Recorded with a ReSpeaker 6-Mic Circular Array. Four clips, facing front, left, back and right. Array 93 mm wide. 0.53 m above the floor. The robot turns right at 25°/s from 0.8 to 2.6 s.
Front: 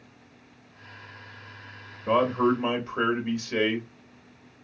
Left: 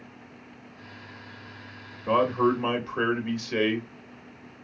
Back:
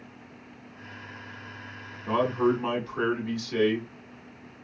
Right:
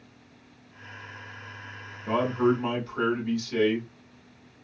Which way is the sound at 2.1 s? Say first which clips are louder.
Left 1 dB, front 2 dB; 35° left.